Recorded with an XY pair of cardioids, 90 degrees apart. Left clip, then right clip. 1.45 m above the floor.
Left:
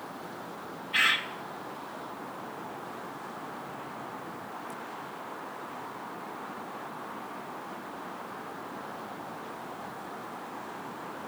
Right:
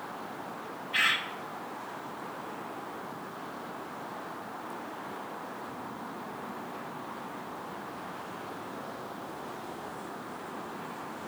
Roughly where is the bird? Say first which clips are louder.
Left 2 dB; ahead.